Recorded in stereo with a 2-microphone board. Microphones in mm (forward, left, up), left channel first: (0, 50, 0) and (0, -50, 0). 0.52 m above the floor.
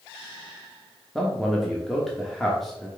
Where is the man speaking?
Centre (ahead or behind), 0.8 m.